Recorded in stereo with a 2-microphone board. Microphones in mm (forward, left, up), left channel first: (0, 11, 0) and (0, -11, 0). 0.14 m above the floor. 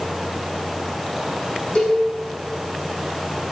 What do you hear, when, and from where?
1.8 s a cowbell: 65° left (ahead or behind), 4.5 m